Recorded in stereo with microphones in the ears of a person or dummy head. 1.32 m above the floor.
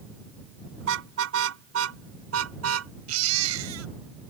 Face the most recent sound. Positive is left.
turn(degrees=-85)